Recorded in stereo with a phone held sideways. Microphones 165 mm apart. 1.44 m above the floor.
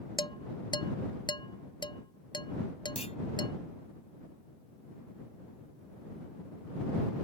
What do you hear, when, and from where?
0.2 s dishes clattering: 30° left (ahead or behind)
3.0 s a clunk: 40° left (ahead or behind)